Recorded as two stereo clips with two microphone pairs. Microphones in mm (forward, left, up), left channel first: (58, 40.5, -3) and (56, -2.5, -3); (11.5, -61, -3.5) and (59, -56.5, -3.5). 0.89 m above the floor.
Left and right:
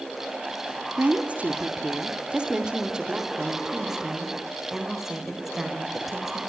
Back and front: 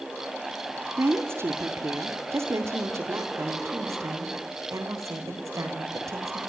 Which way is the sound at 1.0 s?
35° right.